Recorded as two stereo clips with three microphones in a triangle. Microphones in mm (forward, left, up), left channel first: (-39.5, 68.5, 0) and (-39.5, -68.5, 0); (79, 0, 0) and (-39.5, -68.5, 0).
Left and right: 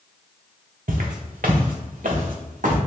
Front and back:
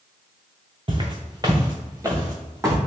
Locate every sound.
0.9 s footsteps: 100° right, 0.8 m; by 2.8 s 80° right, 1.7 m